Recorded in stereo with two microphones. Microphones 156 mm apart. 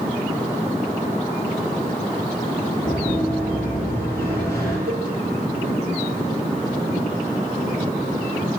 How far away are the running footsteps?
About 10 m.